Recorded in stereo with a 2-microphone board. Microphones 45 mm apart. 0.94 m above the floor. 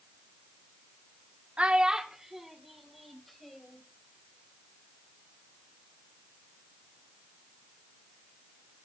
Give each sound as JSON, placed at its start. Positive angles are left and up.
{"t": 1.6, "sound": "a child speaking", "side_deg": -30, "distance_m": 1.0}